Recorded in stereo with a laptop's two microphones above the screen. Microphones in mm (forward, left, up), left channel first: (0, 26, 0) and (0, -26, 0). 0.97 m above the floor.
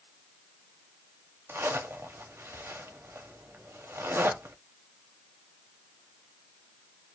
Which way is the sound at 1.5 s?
50° right (ahead or behind).